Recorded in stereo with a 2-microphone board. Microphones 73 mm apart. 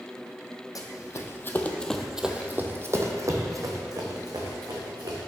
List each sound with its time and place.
0.8 s running footsteps: 55° left (ahead or behind), 0.9 m; by 5.2 s 65° right (ahead or behind), 1.9 m